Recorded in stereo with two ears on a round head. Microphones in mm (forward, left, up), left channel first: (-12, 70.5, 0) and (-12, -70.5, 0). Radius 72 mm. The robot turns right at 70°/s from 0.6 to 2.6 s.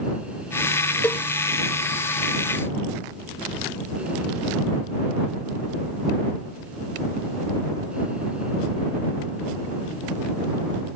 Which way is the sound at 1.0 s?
10° left (ahead or behind).